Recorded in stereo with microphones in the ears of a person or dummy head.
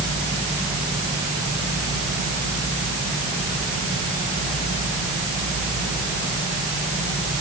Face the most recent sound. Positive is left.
No sound to turn to.